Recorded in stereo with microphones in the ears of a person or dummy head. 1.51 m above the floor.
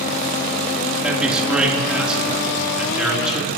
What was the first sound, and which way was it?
A man speaking, 5° right (ahead or behind).